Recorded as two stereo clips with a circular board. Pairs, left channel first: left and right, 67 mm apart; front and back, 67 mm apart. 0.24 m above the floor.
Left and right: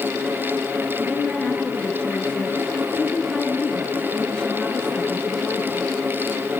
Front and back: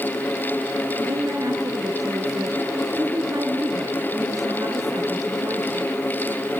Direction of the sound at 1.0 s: 165° left.